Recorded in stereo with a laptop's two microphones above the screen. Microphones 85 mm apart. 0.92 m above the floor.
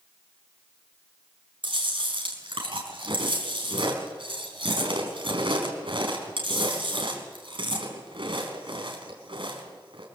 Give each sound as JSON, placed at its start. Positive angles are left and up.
{"t": 1.6, "sound": "chewing", "side_deg": -85, "distance_m": 4.0}